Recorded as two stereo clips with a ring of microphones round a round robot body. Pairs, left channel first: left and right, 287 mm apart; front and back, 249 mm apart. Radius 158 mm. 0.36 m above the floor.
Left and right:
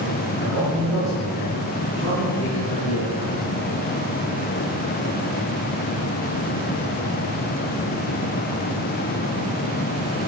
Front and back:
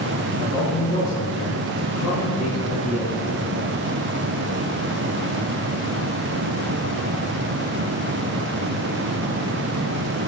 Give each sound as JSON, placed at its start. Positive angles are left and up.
{"t": 0.3, "sound": "a man speaking", "azimuth_deg": 5, "distance_m": 7.5}